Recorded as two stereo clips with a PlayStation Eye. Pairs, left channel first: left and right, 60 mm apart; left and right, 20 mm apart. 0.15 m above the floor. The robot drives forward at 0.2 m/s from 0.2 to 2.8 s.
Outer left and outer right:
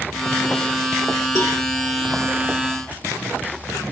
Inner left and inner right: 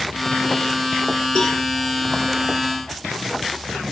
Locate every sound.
1.4 s a cowbell: 55° left (ahead or behind), 3.5 m